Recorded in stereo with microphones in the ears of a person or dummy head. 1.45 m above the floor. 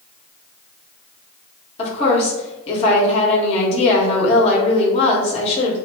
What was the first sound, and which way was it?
A woman speaking, 40° left (ahead or behind).